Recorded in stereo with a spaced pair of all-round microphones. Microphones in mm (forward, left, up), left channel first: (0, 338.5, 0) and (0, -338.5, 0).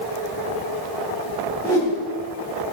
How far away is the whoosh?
About 6 m.